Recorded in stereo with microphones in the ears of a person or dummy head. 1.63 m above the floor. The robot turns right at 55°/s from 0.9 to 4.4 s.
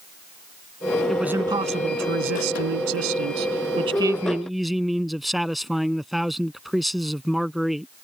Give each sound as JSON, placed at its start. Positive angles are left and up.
{"t": 1.1, "sound": "a man speaking", "azimuth_deg": 180}